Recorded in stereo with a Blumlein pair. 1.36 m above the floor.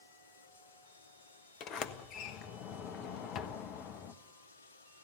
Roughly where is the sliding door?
Ahead left.